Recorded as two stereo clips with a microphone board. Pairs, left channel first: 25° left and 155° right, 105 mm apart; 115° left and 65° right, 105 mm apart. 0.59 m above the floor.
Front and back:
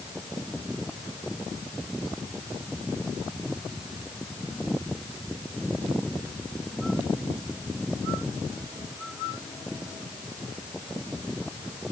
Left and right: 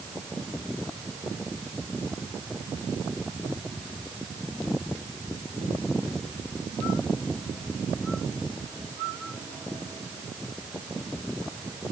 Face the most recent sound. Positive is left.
No sound to turn to.